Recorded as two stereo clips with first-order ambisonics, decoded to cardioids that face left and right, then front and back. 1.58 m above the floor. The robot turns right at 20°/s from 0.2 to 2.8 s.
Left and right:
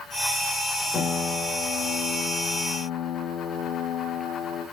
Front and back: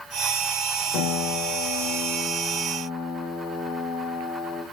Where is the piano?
15° left, 2.5 m; by 4.6 s 55° left, 2.5 m.